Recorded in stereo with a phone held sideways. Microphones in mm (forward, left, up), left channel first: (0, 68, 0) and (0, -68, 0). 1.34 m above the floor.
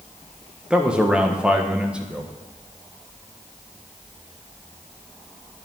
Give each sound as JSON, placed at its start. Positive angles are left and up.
{"t": 0.7, "sound": "a man speaking", "side_deg": -5, "distance_m": 1.3}